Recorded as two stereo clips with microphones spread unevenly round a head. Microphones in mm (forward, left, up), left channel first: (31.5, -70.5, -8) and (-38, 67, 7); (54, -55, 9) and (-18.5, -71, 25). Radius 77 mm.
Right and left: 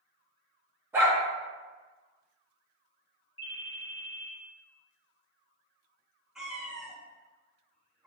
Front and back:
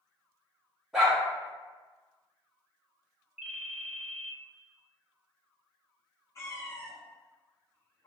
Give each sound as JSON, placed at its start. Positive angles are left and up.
{"t": 0.9, "sound": "a dog barking", "azimuth_deg": 140, "distance_m": 1.2}
{"t": 3.4, "sound": "a ringtone", "azimuth_deg": -105, "distance_m": 1.4}
{"t": 6.3, "sound": "a cat meowing", "azimuth_deg": 45, "distance_m": 0.9}